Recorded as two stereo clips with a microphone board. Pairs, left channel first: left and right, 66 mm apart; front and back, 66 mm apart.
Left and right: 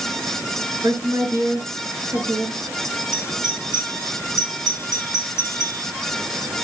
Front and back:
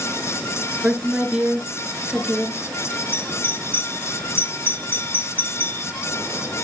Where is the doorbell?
50° left, 2.5 m.